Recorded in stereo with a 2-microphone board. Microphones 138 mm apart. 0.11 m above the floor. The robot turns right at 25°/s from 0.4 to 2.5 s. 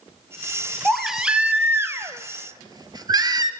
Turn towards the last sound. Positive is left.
turn(degrees=-140)